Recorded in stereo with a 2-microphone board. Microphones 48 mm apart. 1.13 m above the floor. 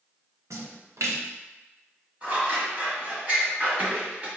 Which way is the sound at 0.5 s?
75° right (ahead or behind).